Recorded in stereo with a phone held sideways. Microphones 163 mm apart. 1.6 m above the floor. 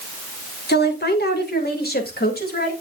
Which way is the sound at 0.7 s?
85° left.